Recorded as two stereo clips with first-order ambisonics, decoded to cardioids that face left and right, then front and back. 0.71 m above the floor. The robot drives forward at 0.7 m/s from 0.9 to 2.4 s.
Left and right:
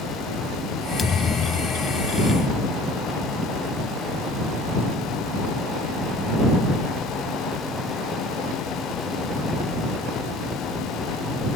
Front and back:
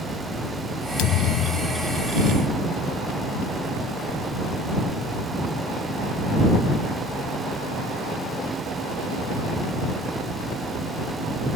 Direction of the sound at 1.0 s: 20° left.